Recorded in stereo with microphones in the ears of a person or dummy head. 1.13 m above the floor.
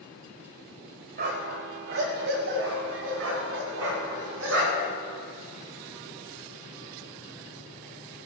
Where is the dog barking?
40° right (ahead or behind), 1.1 m; by 4.9 s 75° right (ahead or behind), 3 m.